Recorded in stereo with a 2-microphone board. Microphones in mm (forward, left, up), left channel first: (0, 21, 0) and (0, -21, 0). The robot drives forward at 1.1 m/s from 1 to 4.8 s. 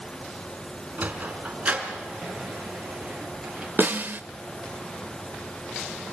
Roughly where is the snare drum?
Right.